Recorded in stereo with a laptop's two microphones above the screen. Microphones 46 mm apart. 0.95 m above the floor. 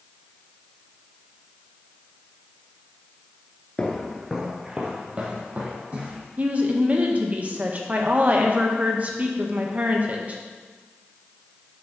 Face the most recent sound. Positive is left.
turn(degrees=-35)  # may be behind; listen again after turning